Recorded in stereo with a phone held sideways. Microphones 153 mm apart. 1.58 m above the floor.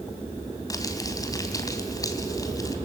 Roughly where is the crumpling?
Left.